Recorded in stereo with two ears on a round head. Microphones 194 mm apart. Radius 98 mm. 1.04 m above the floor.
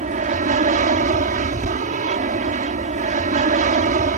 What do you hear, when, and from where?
0.0 s an aircraft: 35° right (ahead or behind)